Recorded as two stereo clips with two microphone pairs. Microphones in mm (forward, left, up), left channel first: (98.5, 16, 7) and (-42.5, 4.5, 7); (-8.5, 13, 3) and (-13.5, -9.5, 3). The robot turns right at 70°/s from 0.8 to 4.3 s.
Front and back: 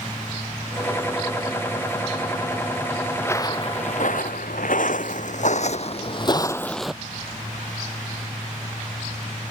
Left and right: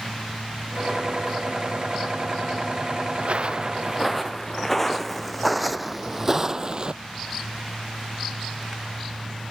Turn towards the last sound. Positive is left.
turn(degrees=-85)